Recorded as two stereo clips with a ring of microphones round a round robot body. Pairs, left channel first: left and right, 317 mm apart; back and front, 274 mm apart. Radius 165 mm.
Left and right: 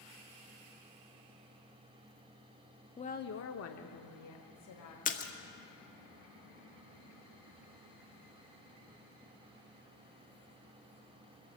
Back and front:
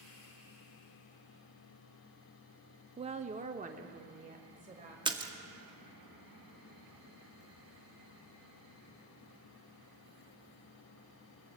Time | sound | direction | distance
3.0 | a woman speaking | 40° left | 0.6 m
5.0 | a splash | 55° left | 1.3 m